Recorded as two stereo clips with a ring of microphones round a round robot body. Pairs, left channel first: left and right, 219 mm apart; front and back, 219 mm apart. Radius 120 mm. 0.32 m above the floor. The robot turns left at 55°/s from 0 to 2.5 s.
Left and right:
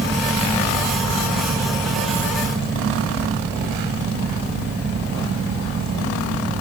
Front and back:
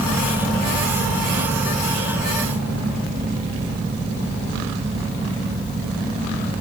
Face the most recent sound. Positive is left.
No sound to turn to.